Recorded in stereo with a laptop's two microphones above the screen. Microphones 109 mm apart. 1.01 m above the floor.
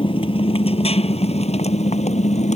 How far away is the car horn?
I don't hear a car horn.